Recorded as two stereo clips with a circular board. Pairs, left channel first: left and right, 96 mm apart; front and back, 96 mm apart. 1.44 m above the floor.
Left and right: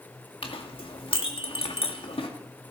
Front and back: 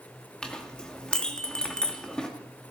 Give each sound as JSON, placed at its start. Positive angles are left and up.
{"t": 0.4, "sound": "a clink", "azimuth_deg": 80, "distance_m": 1.8}